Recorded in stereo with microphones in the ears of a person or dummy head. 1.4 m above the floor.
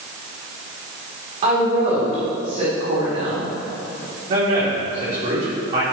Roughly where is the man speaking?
Right.